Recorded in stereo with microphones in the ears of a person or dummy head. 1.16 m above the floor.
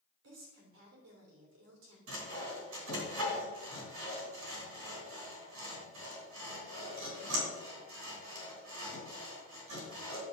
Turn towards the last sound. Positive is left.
turn(degrees=-80)